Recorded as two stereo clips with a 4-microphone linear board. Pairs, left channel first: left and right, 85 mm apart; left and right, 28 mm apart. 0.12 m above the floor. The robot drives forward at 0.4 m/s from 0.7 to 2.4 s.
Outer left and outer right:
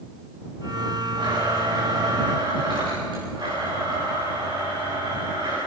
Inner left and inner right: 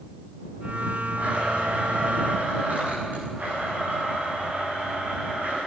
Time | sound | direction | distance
1.2 | a blender | 60° right (ahead or behind) | 9.5 m